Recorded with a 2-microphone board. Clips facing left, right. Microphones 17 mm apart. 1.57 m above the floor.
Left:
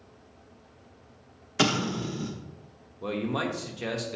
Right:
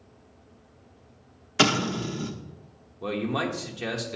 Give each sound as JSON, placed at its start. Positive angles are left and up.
{"t": 1.6, "sound": "an explosion", "side_deg": -20, "distance_m": 0.7}
{"t": 3.0, "sound": "a man speaking", "side_deg": -10, "distance_m": 1.0}